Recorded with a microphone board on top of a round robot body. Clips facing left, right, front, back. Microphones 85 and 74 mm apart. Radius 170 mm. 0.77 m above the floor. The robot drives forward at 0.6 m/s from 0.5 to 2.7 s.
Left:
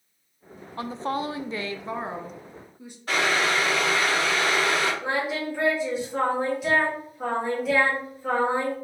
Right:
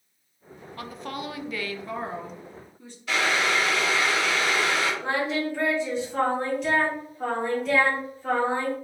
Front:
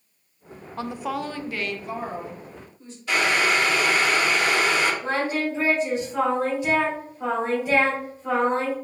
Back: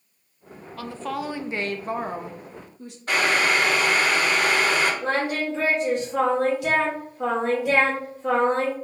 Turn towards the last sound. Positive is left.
turn(degrees=175)